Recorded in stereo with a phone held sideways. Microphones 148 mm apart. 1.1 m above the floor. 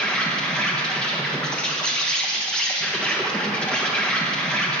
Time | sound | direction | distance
0.0 | an insect | 5° left (ahead or behind) | 1.2 m